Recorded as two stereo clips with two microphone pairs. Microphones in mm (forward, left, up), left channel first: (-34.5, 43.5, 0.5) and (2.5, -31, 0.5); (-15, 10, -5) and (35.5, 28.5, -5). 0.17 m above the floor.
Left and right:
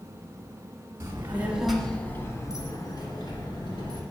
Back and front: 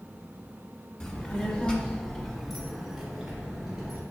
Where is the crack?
No crack in this recording.